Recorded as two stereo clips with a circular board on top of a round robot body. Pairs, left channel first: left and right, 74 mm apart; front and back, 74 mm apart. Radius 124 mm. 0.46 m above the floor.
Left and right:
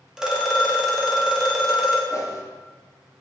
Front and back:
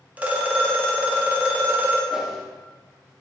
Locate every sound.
0.2 s a phone ringing: 155° right, 0.7 m
2.1 s a whoosh: 100° left, 0.6 m